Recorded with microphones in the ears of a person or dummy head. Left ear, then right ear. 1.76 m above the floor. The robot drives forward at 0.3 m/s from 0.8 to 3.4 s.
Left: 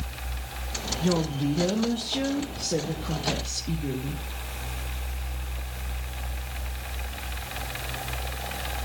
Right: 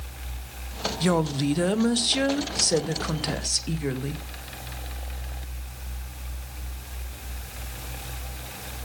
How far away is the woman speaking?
About 1.2 m.